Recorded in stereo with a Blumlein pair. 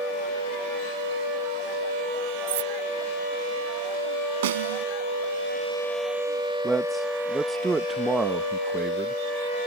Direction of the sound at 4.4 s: 55° right.